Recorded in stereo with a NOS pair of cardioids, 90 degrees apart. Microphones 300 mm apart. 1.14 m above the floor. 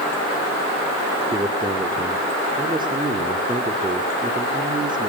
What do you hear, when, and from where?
1.3 s a man speaking: 15° right, 3 m